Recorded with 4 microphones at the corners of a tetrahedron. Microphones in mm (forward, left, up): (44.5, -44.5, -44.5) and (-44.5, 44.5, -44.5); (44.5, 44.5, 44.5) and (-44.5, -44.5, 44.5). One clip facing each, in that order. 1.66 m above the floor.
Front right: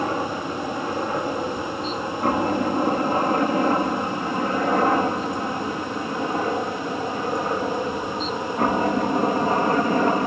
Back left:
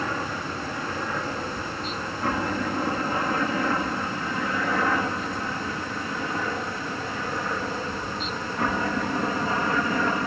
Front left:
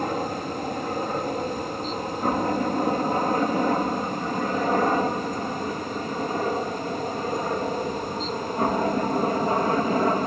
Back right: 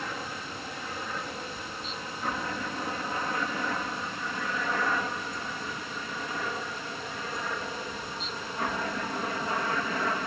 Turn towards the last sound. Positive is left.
turn(degrees=0)